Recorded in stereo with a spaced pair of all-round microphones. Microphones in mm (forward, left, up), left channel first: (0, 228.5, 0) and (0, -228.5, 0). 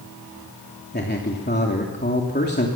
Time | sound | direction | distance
0.9 | a man speaking | 25° left (ahead or behind) | 3 m